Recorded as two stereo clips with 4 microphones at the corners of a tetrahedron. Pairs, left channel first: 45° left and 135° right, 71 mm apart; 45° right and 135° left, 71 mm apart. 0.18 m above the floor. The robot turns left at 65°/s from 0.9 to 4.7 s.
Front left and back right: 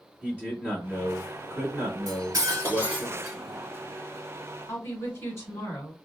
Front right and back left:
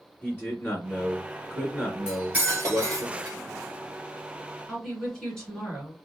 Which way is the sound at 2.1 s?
145° right.